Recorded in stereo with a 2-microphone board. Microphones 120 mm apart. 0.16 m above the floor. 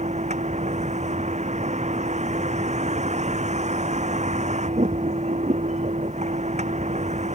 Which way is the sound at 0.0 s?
85° right.